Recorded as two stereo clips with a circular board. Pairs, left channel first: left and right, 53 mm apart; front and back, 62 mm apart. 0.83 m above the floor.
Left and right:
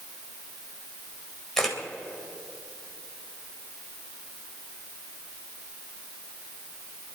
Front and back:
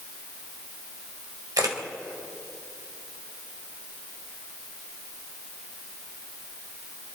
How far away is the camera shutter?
About 3 m.